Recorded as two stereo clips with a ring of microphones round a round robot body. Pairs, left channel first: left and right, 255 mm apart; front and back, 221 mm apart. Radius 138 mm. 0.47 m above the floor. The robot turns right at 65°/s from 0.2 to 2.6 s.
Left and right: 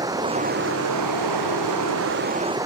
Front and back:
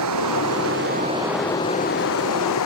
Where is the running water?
170° right; by 2.7 s 10° right.